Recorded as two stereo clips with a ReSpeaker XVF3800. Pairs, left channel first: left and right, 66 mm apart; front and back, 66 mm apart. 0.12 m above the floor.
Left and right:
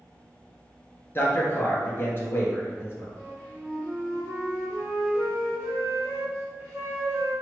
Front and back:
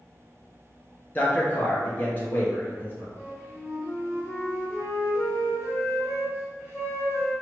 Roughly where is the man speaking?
Ahead left.